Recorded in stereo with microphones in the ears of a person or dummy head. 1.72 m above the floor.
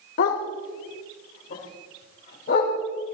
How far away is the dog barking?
About 2 m.